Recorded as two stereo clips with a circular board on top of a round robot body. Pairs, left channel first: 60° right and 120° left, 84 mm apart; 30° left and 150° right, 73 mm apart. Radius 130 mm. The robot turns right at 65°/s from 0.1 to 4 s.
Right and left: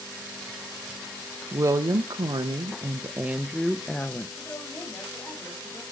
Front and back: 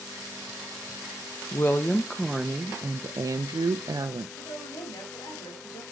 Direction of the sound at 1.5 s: 75° left.